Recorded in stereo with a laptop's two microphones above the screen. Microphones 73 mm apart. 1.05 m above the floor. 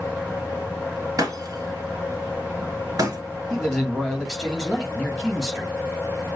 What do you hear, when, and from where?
0.0 s a fan: 15° right (ahead or behind), 4 m
1.2 s breaking glass: 55° right (ahead or behind), 1.8 m
3.5 s a man speaking: centre (ahead or behind), 3 m